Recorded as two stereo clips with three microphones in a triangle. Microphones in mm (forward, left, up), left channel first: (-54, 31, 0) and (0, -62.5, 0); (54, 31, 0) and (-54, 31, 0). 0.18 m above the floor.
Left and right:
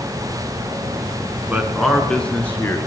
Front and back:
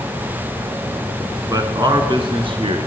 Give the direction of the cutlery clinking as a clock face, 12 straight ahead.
No cutlery clinking in this recording.